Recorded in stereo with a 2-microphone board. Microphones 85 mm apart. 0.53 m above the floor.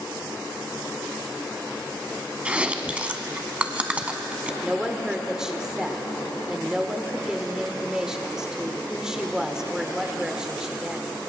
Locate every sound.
2.5 s chewing: 15° right (ahead or behind), 0.8 m
4.6 s a woman speaking: 10° right (ahead or behind), 1.2 m